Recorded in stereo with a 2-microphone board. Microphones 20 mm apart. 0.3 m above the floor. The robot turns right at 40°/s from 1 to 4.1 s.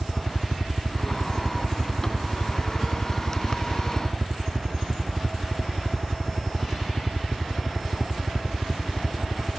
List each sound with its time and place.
0.0 s a helicopter: centre (ahead or behind); by 9.6 s 10° right (ahead or behind)